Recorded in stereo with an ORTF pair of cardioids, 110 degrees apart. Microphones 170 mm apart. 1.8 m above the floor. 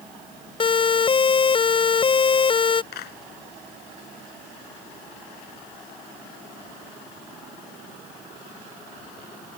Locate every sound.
0.6 s a siren: 30° left
2.9 s a clap: 65° left